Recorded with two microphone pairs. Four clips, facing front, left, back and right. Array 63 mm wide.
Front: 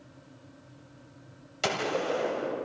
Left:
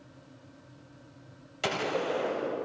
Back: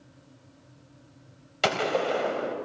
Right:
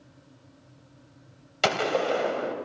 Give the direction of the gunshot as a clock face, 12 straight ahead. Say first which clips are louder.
Right 5 dB, back 4 dB; 4 o'clock.